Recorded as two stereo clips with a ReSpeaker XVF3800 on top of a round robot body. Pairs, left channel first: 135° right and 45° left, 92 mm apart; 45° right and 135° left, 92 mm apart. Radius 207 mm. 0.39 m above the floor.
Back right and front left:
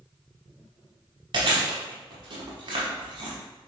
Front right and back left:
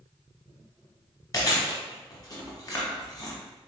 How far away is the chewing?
About 0.9 m.